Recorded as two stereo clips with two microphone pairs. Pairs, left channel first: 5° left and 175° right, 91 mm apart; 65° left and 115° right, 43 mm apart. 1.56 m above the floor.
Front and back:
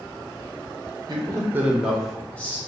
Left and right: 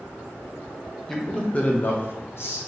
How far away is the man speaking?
About 0.8 m.